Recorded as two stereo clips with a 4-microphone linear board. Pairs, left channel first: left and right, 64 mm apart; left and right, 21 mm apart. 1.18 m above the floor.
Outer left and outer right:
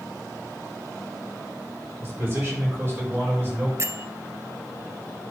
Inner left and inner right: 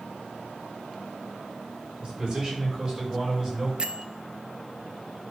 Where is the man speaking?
40° right (ahead or behind), 4 m; by 3.7 s 30° right (ahead or behind), 5 m.